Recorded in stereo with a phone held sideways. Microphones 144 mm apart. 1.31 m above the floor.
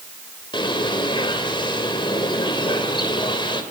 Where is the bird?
35° left (ahead or behind), 3 m.